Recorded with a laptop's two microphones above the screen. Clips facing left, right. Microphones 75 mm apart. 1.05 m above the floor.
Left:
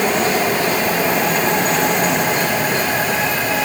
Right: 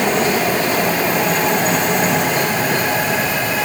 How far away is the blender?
I don't hear a blender.